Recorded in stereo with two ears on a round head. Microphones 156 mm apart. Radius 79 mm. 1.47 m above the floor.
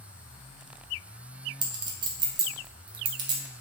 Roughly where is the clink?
Right.